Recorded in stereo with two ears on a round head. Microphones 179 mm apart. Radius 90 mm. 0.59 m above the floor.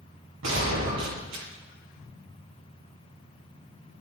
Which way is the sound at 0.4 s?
70° right (ahead or behind).